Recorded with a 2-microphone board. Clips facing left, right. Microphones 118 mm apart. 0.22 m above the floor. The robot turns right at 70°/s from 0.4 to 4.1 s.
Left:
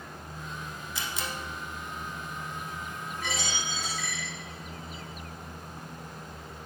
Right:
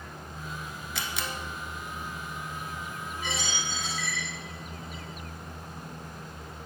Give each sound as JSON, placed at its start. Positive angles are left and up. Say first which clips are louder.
{"t": 0.9, "sound": "a camera shutter", "louder": "right 1 dB", "side_deg": -70, "distance_m": 1.1}
{"t": 3.2, "sound": "a dropped coin", "louder": "even", "side_deg": 85, "distance_m": 3.5}